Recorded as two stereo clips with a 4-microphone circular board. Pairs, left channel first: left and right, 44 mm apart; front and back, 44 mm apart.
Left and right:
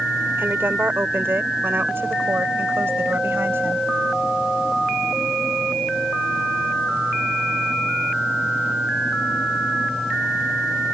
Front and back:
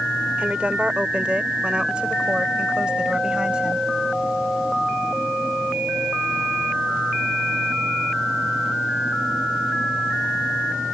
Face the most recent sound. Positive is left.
turn(degrees=-115)